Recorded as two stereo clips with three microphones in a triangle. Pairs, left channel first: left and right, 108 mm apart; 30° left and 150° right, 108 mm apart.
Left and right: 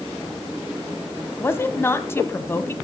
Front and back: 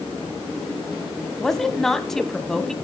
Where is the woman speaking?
110° left, 1.0 m.